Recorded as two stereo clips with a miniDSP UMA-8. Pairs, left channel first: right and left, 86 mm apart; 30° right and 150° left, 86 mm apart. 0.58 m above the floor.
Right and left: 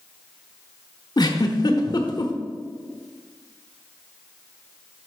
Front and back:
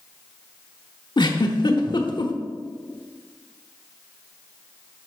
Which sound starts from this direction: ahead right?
A giggle, at 1.2 s.